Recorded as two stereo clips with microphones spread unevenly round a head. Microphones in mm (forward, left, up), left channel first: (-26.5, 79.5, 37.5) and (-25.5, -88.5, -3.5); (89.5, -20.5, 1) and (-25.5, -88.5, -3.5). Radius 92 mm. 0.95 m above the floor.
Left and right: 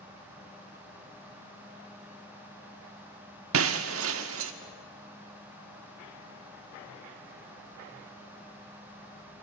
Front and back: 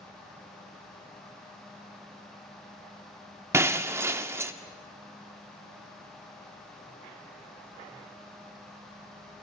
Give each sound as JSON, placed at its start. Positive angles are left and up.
{"t": 3.5, "sound": "breaking glass", "azimuth_deg": -80, "distance_m": 0.7}